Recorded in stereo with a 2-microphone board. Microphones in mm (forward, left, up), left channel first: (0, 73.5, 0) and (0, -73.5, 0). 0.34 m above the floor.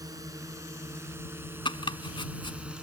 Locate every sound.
0.0 s a drone: 25° right (ahead or behind); by 2.8 s 5° right (ahead or behind)
1.6 s chopping: 35° left (ahead or behind)